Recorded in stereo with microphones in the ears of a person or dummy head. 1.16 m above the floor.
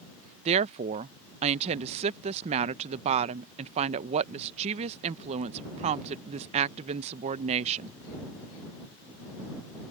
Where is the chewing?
No chewing in this recording.